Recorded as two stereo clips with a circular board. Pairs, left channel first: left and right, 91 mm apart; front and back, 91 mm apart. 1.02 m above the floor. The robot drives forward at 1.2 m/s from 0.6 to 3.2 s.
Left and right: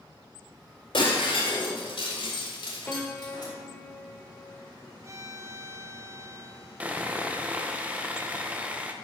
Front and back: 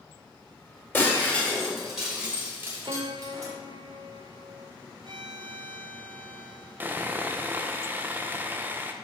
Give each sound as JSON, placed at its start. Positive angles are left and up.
{"t": 0.9, "sound": "breaking glass", "azimuth_deg": 65, "distance_m": 2.5}
{"t": 2.9, "sound": "a piano", "azimuth_deg": 160, "distance_m": 0.7}
{"t": 5.0, "sound": "a violin", "azimuth_deg": -145, "distance_m": 0.7}
{"t": 6.8, "sound": "sawing", "azimuth_deg": -145, "distance_m": 0.7}